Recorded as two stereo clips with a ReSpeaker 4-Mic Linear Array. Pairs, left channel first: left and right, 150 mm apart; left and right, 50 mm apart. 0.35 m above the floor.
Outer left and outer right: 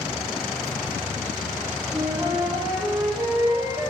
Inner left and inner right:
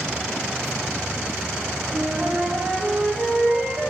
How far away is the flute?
About 0.8 m.